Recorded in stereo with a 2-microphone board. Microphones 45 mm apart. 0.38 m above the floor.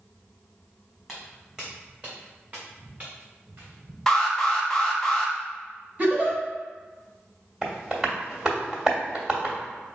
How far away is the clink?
No clink in this recording.